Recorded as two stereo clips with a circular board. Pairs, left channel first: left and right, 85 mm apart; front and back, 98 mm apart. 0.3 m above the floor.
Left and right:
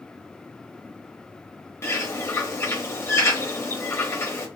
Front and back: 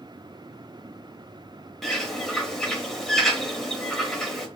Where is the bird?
85° left, 0.7 m.